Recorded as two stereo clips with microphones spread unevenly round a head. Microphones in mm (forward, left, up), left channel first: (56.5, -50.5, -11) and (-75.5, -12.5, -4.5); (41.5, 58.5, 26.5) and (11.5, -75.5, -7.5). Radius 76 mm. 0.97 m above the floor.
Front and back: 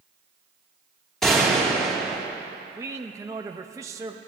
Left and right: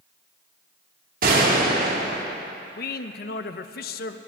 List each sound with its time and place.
1.2 s a gunshot: 105° right, 2.5 m
2.8 s a man speaking: 95° left, 0.7 m